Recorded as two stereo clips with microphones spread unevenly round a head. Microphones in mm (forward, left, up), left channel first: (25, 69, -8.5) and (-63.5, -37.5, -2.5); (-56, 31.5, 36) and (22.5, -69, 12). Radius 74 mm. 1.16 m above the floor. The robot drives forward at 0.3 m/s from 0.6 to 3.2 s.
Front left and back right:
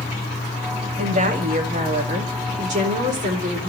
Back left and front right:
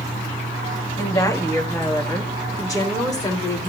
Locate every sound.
1.0 s a woman speaking: 160° right, 2.5 m; by 3.7 s 165° right, 3 m